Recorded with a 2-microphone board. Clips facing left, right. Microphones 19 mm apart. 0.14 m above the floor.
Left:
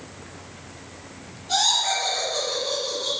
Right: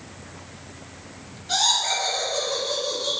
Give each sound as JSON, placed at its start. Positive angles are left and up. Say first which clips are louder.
{"t": 1.5, "sound": "laughter", "louder": "even", "side_deg": -20, "distance_m": 1.3}